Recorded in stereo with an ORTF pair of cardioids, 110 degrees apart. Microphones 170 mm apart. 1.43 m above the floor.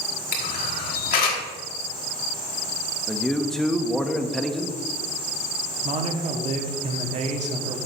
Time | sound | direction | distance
0.3 | a camera shutter | 65° left | 1.7 m
3.1 | a man speaking | 5° left | 0.8 m
5.8 | a man speaking | 45° right | 1.2 m